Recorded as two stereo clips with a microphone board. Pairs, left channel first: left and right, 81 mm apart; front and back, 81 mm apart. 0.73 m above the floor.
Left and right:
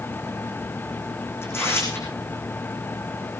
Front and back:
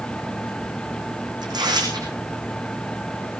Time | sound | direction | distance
1.4 | tearing paper | 150° left | 8.5 m